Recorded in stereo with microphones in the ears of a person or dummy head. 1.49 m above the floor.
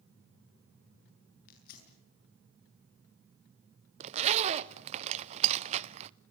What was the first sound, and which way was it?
Tearing paper, 55° left (ahead or behind).